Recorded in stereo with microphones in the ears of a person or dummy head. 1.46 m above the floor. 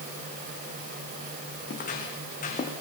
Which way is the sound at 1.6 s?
50° left (ahead or behind).